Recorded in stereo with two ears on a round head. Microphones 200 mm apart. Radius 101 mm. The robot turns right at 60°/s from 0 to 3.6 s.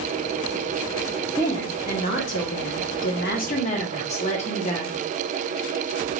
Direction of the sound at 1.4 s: 10° left.